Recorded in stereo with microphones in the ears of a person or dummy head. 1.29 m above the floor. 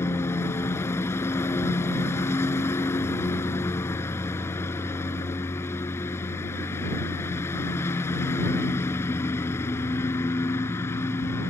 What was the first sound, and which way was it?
A lawn mower, 15° left (ahead or behind).